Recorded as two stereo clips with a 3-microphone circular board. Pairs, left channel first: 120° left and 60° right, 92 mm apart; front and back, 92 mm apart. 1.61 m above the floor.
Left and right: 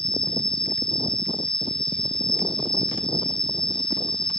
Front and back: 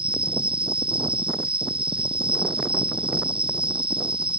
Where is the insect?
160° right.